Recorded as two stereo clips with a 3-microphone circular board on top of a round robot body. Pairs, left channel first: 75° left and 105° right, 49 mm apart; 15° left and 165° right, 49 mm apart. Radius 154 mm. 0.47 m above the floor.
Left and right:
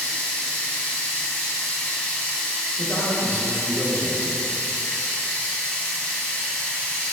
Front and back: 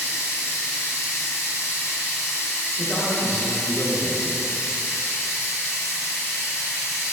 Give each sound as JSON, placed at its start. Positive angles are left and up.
{"t": 0.0, "sound": "running water", "azimuth_deg": 5, "distance_m": 0.8}
{"t": 2.8, "sound": "a man speaking", "azimuth_deg": 95, "distance_m": 1.2}